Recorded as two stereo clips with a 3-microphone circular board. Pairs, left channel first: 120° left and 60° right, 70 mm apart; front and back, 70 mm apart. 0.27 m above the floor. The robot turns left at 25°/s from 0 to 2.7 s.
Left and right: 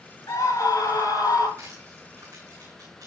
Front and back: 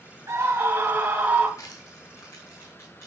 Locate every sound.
0.3 s a scream: 145° left, 3.5 m; by 1.5 s 115° left, 3.5 m
1.6 s crushing: 20° right, 7.5 m; by 3.1 s 50° right, 7.5 m